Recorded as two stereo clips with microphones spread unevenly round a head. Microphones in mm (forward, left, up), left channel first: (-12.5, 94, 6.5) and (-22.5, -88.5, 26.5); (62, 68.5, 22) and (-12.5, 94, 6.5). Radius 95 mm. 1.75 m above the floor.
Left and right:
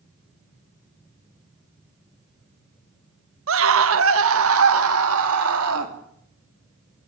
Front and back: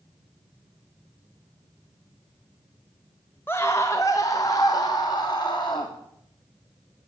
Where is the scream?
95° right, 1.8 m; by 5.9 s 85° right, 3.5 m.